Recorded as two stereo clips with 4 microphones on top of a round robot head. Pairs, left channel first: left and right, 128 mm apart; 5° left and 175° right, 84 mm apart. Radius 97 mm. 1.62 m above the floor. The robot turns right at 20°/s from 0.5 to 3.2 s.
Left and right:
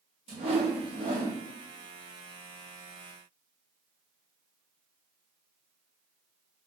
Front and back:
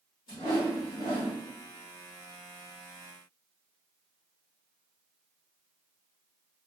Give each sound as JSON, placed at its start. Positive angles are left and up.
{"t": 0.3, "sound": "a whoosh", "azimuth_deg": -45, "distance_m": 0.8}